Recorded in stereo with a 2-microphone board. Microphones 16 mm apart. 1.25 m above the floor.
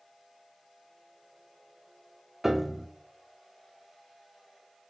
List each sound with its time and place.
2.4 s a piano: 20° right (ahead or behind), 0.7 m